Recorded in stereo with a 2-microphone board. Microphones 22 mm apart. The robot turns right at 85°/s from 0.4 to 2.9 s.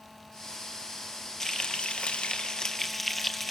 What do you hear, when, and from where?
1.4 s frying: 25° left, 1.9 m; by 3.5 s 155° left, 1.9 m